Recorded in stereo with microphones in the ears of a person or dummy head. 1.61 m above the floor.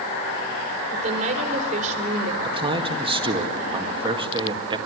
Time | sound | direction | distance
0.9 | a woman speaking | 45° right (ahead or behind) | 4 m
2.4 | a man speaking | 30° right (ahead or behind) | 1.9 m